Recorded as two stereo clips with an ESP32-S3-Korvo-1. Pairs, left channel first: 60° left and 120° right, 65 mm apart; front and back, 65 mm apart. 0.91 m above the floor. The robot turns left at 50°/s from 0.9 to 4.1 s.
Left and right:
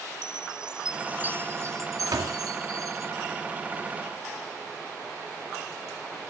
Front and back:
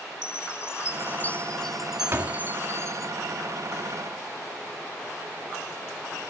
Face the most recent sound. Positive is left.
turn(degrees=130)